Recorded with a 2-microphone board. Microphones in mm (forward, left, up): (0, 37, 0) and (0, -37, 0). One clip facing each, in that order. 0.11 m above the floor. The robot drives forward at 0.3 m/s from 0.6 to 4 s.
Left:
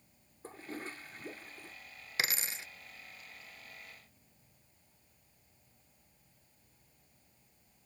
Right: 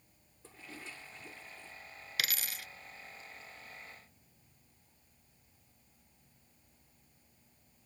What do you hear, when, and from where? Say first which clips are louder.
0.4 s a toilet flushing: left 6 dB; 40° left (ahead or behind); by 1.8 s 45° left (ahead or behind)
2.2 s a dropped coin: left 2 dB; 30° left (ahead or behind)